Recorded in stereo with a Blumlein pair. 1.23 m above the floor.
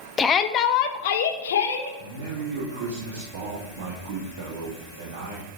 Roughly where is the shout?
Ahead.